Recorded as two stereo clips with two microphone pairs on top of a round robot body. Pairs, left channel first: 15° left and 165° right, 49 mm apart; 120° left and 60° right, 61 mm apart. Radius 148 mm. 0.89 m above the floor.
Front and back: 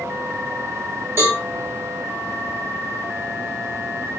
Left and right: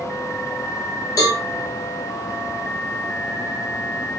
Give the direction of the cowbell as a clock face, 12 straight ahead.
7 o'clock.